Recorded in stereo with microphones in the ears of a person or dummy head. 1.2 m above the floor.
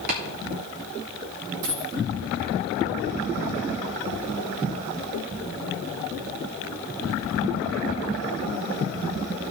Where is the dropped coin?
70° right (ahead or behind), 3.5 m.